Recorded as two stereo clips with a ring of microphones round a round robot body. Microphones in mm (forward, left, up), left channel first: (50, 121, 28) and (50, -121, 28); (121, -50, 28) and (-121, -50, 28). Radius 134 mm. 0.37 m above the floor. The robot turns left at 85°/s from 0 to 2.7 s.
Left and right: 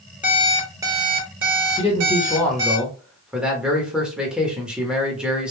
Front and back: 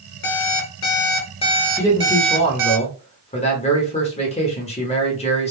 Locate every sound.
0.2 s an alarm clock: 35° left, 1.1 m; by 2.8 s 175° right, 1.1 m
1.8 s a man speaking: 70° left, 0.9 m; by 5.5 s 10° right, 0.9 m